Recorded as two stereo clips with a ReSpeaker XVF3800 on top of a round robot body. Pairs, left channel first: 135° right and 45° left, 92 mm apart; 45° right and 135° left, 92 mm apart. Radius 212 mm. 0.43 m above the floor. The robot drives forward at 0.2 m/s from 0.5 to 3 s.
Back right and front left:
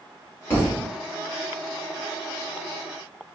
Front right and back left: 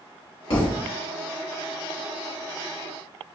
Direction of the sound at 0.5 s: 70° right.